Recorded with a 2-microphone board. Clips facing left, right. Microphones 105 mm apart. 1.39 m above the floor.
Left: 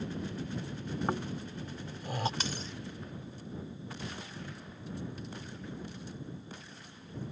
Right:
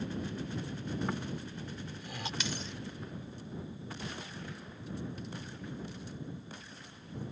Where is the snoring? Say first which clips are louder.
Left 3 dB; 40° left (ahead or behind).